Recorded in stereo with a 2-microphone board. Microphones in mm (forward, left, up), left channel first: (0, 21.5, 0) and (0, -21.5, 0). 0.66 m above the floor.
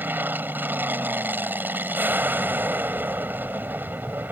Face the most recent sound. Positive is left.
turn(degrees=-50)  # may be behind; listen again after turning